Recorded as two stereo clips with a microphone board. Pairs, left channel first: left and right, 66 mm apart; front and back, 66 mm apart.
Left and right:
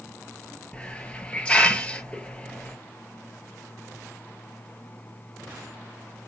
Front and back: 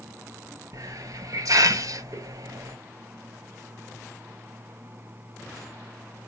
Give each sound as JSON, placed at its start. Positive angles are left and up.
{"t": 0.7, "sound": "a hiss", "azimuth_deg": 160, "distance_m": 0.7}